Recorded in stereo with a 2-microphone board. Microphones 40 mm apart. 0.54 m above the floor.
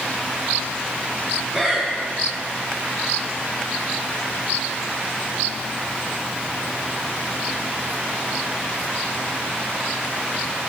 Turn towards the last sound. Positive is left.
turn(degrees=-15)  # may be behind; listen again after turning